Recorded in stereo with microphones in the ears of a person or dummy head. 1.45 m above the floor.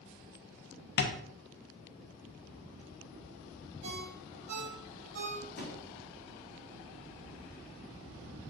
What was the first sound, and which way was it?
Tapping, 50° left (ahead or behind).